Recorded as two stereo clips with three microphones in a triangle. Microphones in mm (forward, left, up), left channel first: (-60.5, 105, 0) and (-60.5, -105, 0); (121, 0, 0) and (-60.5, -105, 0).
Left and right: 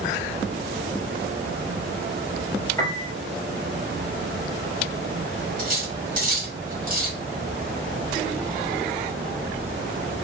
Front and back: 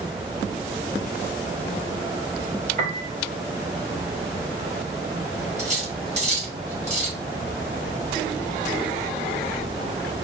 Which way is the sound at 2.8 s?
165° left.